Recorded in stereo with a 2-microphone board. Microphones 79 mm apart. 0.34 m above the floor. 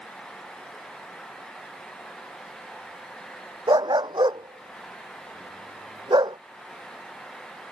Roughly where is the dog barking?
Right.